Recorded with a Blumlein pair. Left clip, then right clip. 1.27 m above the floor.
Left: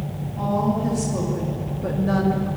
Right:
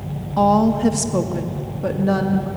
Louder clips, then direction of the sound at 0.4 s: Right 8 dB; 40° right.